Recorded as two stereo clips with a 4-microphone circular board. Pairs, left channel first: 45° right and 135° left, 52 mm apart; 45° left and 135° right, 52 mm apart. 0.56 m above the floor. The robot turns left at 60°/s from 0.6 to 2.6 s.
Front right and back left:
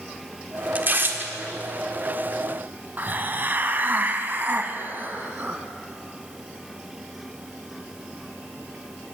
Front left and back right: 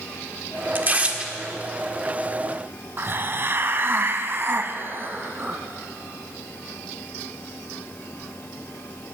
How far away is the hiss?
About 0.9 m.